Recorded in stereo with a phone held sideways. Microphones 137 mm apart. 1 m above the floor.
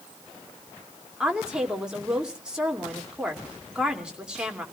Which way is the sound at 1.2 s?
5° right (ahead or behind).